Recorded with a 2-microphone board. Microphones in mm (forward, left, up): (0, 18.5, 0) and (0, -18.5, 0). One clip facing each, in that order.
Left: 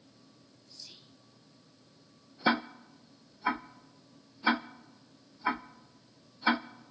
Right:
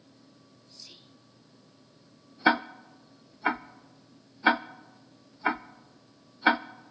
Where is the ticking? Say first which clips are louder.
Right 5 dB; 50° right (ahead or behind), 0.9 m.